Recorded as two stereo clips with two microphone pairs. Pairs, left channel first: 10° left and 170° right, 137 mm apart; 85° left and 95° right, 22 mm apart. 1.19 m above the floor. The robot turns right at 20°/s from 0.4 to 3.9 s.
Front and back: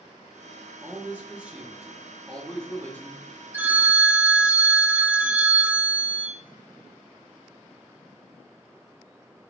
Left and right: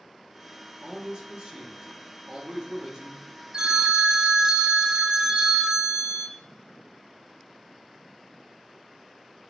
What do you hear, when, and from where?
0.8 s a man speaking: 105° right, 0.8 m; by 3.2 s 55° right, 0.8 m
3.5 s a phone ringing: 105° right, 0.5 m; by 6.3 s 100° right, 0.5 m